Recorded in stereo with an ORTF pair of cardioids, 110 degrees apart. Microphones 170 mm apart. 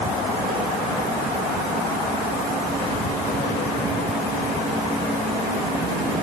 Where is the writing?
No writing in this recording.